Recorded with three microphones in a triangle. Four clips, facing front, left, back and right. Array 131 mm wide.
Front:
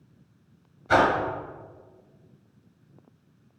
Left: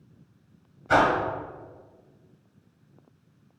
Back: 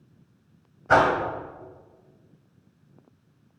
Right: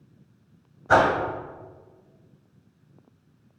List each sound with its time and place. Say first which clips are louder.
0.9 s a whoosh: right 2 dB, back 1 dB; 135° right, 1.3 m